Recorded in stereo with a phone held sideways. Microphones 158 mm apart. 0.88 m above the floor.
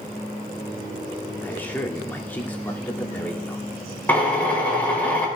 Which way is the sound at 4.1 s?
10° left (ahead or behind).